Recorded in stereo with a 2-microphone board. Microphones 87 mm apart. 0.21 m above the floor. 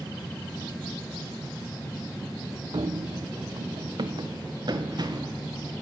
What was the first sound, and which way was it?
Running footsteps, 70° right (ahead or behind).